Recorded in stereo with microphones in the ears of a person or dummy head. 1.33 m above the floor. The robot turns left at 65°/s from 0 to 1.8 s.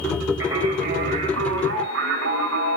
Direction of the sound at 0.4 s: 10° right.